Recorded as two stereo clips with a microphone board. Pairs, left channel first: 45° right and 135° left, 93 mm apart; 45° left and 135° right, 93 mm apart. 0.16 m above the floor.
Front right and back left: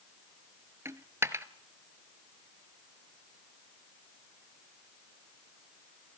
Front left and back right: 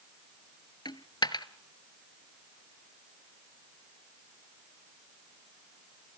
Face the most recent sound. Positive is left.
turn(degrees=80)